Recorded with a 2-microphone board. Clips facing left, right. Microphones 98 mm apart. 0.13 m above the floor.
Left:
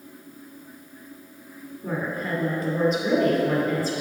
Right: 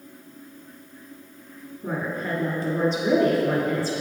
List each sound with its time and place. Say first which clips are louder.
1.8 s a woman speaking: even; 30° right (ahead or behind), 1.7 m